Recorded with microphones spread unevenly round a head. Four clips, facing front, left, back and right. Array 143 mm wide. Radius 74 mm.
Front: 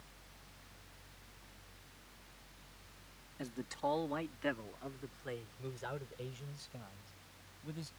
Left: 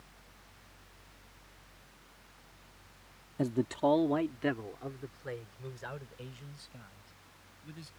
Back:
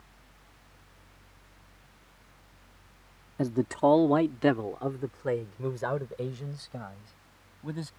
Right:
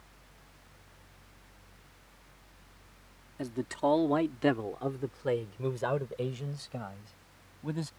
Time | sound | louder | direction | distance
3.4 | a man speaking | left 2 dB, back 14 dB | 155° left | ?